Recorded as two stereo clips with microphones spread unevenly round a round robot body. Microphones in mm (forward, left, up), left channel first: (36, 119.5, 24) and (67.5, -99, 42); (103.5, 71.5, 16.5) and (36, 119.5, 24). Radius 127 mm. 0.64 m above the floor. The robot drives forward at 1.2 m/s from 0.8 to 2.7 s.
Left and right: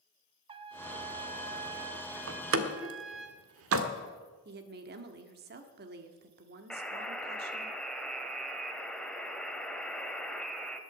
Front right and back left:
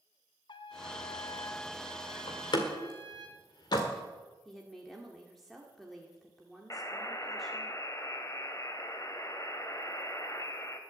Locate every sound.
0.5 s a trumpet: 20° right, 1.0 m; by 3.3 s 170° right, 1.5 m
2.3 s a door slam: 60° right, 1.6 m; by 3.9 s 80° right, 1.5 m
4.5 s a woman speaking: 120° right, 1.6 m
6.7 s a buzzer: 10° left, 2 m